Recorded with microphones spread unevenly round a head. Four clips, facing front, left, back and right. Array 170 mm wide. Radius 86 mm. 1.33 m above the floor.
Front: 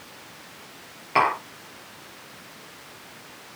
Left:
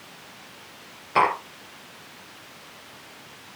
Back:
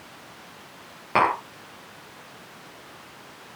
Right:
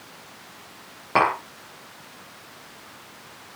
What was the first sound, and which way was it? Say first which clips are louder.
Tapping: even, even; 130° right.